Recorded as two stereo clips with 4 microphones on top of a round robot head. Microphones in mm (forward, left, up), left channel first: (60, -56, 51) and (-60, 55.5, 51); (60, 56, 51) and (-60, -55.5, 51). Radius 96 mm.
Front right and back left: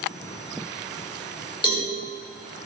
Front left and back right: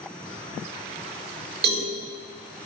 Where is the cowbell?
105° right, 6.5 m.